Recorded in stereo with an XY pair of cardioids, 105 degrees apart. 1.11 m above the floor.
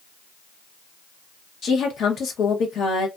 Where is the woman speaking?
60° left, 0.8 m.